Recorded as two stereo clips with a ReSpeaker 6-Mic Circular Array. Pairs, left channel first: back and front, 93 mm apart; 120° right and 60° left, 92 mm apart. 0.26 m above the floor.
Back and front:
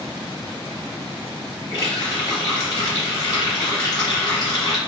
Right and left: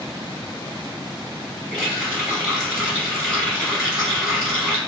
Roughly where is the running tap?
Behind left.